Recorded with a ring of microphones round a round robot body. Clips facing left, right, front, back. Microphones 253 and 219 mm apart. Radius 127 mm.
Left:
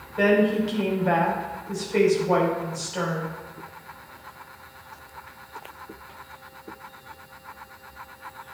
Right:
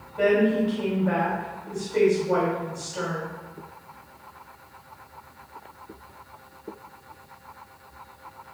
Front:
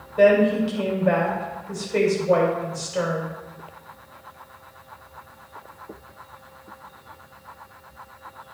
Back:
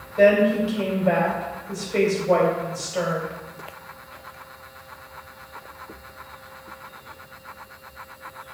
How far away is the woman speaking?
About 2.5 m.